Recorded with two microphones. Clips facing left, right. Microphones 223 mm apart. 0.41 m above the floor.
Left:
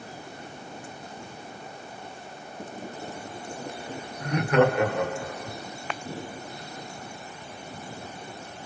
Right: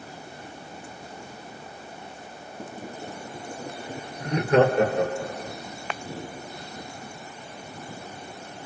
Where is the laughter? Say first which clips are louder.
Right 2 dB; 25° right (ahead or behind), 1.4 m; by 5.6 s 45° right (ahead or behind), 1.9 m.